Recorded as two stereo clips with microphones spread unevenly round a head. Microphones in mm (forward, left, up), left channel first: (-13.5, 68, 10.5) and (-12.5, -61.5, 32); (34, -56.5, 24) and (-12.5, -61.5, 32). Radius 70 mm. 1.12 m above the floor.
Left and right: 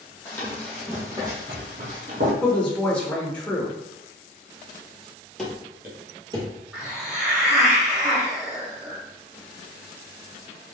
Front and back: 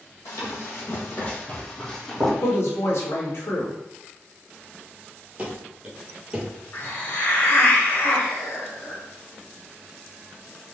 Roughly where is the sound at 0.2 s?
Ahead.